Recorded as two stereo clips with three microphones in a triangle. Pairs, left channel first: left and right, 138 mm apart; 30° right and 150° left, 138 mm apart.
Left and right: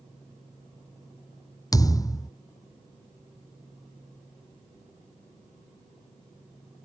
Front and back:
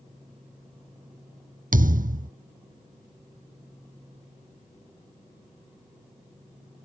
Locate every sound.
1.7 s a thud: 155° left